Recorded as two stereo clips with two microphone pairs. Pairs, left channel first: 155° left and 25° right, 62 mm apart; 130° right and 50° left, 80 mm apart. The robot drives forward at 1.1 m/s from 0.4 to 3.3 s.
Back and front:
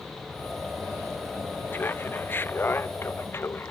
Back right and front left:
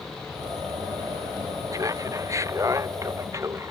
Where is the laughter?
100° left; by 3.7 s 105° left.